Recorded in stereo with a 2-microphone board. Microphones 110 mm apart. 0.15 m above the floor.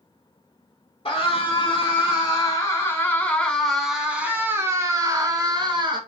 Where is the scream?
50° left (ahead or behind), 1.9 m; by 6.0 s 45° right (ahead or behind), 1.7 m.